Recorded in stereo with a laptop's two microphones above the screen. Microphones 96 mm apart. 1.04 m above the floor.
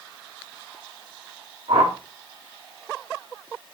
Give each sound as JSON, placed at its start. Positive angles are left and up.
{"t": 1.7, "sound": "a whoosh", "side_deg": -80, "distance_m": 2.0}